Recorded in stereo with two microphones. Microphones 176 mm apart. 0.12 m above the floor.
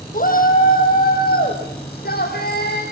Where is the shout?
55° left (ahead or behind), 4 m; by 2.8 s 65° left (ahead or behind), 7.5 m.